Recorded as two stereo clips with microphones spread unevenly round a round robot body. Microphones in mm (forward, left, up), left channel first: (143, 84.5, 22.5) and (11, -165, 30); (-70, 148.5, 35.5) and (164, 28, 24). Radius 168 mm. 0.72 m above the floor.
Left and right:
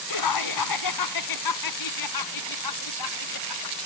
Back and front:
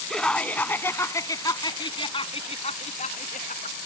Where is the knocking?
I don't hear knocking.